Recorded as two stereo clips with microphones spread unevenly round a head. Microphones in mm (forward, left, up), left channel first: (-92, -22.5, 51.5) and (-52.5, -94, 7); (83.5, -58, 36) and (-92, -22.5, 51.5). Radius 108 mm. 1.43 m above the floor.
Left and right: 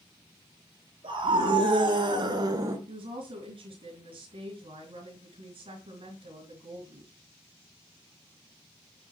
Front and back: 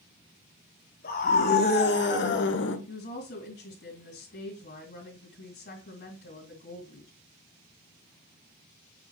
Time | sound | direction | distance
1.0 | a scream | 45° right | 3 m
2.9 | a woman speaking | 45° right | 2.5 m